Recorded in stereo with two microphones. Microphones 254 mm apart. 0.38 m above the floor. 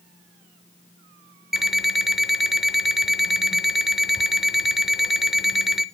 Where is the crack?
I don't hear a crack.